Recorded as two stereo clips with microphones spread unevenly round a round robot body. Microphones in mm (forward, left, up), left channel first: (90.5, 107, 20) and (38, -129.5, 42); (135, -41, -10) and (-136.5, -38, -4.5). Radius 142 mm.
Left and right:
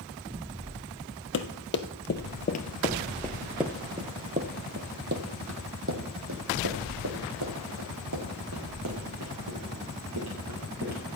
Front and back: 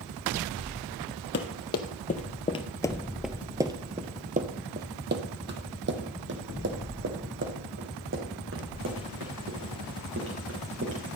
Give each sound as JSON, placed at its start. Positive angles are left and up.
{"t": 1.3, "sound": "running footsteps", "azimuth_deg": 45, "distance_m": 1.4}